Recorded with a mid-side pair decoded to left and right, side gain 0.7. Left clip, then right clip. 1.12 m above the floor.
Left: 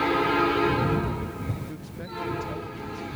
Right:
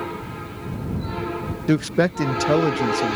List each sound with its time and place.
1.7 s a man speaking: 70° right